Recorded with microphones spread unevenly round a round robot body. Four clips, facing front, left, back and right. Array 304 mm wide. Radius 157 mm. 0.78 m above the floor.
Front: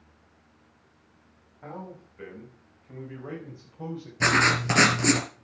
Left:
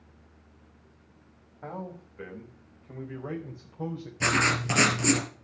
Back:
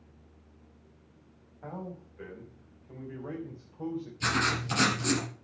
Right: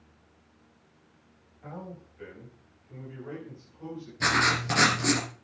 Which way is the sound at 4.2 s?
5° left.